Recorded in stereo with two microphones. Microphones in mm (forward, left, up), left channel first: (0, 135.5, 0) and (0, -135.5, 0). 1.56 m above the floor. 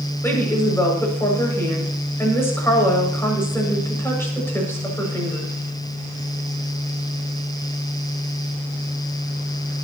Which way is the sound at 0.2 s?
10° left (ahead or behind).